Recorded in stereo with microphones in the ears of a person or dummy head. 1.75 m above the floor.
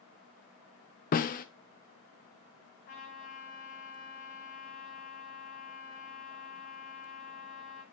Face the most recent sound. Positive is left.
turn(degrees=55)  # may be behind; listen again after turning